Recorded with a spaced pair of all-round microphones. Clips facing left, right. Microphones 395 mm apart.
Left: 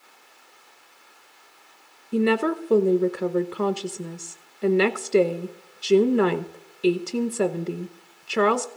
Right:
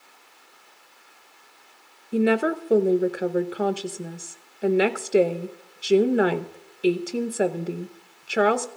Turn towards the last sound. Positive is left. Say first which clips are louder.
# even
turn(degrees=10)  # may be behind; listen again after turning